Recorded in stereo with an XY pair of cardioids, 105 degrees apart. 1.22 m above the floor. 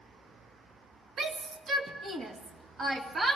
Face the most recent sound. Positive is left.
turn(degrees=-35)